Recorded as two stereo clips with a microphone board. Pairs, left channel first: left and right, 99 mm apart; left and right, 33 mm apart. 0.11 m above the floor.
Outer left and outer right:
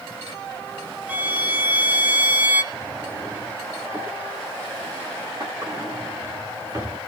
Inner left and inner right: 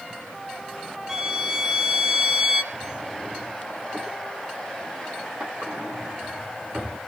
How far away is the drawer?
About 9 m.